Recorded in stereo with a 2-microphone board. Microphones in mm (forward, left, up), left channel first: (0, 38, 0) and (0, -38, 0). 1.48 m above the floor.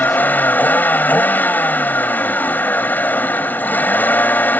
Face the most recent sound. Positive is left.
turn(degrees=25)  # may be behind; listen again after turning